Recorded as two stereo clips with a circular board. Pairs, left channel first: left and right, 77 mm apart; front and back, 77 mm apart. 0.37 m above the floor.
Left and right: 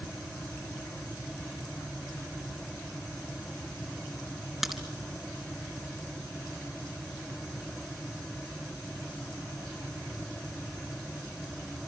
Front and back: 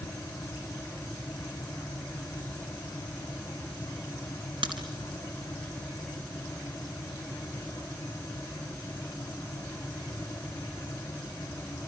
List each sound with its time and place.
4.6 s a crack: straight behind, 3.5 m